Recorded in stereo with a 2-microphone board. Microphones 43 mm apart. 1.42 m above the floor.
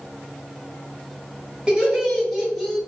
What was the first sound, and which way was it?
Laughter, 20° right (ahead or behind).